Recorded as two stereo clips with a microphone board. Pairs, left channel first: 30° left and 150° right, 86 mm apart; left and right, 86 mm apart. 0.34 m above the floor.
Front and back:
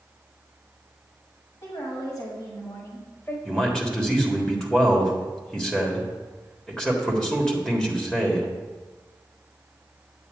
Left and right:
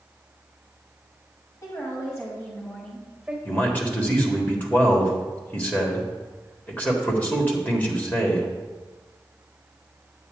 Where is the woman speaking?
55° left, 2 m; by 3.4 s 10° right, 1.5 m.